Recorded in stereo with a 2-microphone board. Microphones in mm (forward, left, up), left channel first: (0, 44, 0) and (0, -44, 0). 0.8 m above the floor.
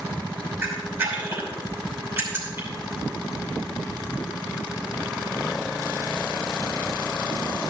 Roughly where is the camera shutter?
Right.